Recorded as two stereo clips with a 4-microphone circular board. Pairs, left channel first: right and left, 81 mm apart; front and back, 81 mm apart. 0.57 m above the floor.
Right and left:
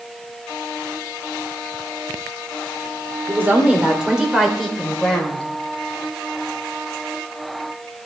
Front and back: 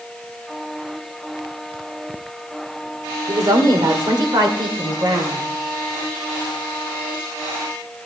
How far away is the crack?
I don't hear a crack.